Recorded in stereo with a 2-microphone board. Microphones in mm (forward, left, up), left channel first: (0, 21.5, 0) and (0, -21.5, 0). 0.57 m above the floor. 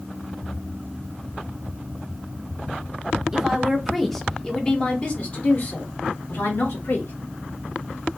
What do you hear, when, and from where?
3.3 s a woman speaking: 15° right (ahead or behind), 1.2 m; by 7.1 s 65° left (ahead or behind), 1.7 m